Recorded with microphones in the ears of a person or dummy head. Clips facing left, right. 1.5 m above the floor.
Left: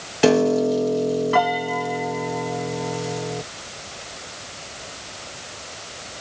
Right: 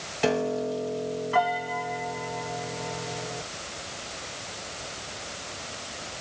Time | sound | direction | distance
0.2 | a piano | 75° left (ahead or behind) | ?